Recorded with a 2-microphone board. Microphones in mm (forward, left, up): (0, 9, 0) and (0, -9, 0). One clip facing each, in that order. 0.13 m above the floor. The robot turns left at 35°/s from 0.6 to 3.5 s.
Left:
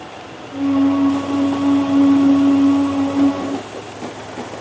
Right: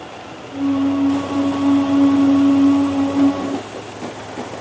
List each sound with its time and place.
Only background noise.